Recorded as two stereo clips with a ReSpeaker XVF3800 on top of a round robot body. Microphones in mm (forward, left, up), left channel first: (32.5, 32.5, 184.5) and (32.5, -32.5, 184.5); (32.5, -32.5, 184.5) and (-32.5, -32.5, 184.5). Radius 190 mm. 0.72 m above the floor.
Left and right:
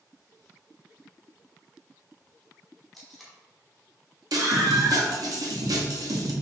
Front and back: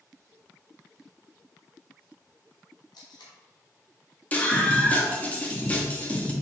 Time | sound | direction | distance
2.9 | tape being pulled | straight ahead | 1.2 m
4.3 | a scream | 65° right | 1.6 m